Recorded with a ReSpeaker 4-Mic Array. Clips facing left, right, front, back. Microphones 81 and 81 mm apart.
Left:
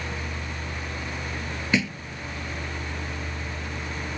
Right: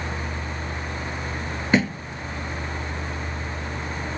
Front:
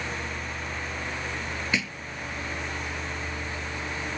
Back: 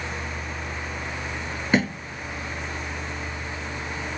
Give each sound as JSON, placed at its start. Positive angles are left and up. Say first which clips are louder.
{"t": 1.7, "sound": "a thud", "louder": "right 5 dB, back 11 dB", "azimuth_deg": -135}